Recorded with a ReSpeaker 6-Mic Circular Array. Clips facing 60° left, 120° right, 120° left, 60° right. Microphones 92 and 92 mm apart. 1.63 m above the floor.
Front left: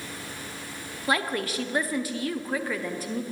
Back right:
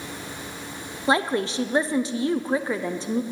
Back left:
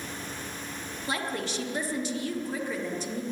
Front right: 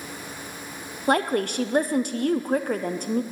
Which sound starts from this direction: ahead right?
A woman speaking, at 1.1 s.